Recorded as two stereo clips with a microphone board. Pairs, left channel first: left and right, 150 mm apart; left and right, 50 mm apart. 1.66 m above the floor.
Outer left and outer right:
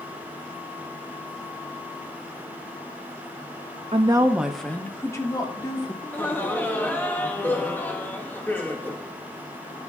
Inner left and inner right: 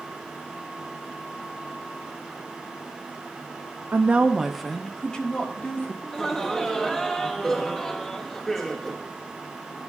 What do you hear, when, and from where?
3.9 s a woman speaking: 45° right (ahead or behind), 0.7 m; by 5.9 s 30° left (ahead or behind), 2 m
6.0 s laughter: 15° left (ahead or behind), 1.0 m